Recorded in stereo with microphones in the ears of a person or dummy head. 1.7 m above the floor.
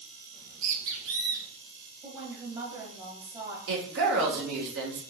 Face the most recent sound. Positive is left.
turn(degrees=-65)  # may be behind; listen again after turning